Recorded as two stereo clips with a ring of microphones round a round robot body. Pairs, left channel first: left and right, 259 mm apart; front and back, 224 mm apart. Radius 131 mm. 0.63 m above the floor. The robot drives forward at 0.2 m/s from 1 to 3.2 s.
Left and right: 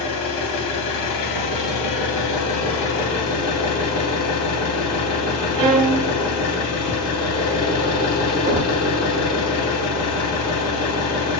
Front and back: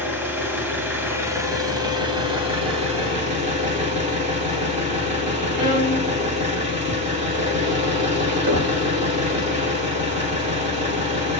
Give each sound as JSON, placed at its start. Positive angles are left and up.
{"t": 0.0, "sound": "an engine running", "azimuth_deg": 100, "distance_m": 1.1}
{"t": 5.6, "sound": "a violin", "azimuth_deg": -105, "distance_m": 0.7}
{"t": 8.5, "sound": "knocking", "azimuth_deg": -155, "distance_m": 1.3}